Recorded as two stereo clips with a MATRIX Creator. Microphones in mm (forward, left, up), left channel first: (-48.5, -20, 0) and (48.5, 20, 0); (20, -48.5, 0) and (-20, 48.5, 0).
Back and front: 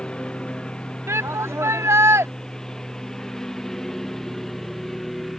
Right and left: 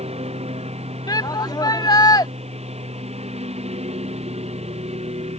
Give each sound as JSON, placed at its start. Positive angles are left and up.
{"t": 0.0, "sound": "a lawn mower", "azimuth_deg": 120}
{"t": 1.1, "sound": "a shout", "azimuth_deg": -30}